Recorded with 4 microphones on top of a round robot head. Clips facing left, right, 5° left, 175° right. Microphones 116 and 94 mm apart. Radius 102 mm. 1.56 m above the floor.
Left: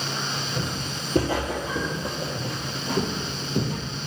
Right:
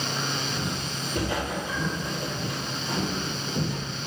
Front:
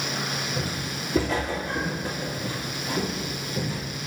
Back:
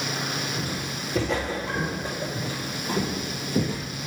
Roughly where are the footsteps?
Ahead left.